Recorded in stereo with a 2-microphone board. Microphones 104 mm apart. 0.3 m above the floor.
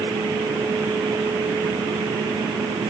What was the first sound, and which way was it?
Only background noise.